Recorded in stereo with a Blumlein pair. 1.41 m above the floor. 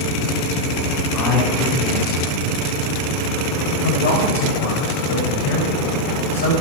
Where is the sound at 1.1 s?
30° left, 5.5 m.